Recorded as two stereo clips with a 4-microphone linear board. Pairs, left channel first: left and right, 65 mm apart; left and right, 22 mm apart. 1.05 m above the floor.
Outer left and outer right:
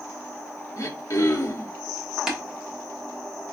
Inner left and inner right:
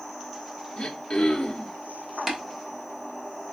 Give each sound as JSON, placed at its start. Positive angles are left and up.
{"t": 0.8, "sound": "throat clearing", "side_deg": 45, "distance_m": 1.0}
{"t": 2.3, "sound": "tapping", "side_deg": -10, "distance_m": 1.2}